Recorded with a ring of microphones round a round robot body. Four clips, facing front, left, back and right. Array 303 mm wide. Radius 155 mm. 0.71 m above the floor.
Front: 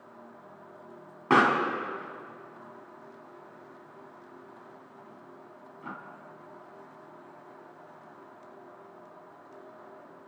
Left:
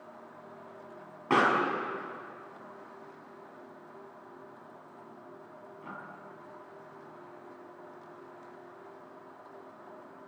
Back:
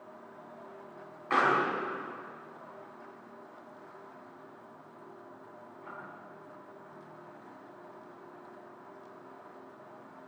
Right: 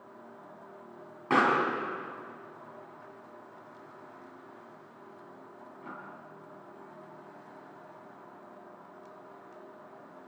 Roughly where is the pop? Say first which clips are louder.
Even, front 4 dB; ahead.